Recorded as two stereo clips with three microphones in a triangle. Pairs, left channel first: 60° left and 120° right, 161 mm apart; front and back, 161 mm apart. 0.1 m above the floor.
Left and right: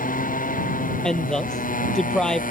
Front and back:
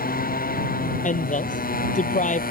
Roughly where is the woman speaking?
Ahead right.